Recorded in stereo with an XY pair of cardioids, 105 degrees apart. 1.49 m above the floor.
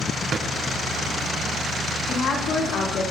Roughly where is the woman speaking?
Ahead left.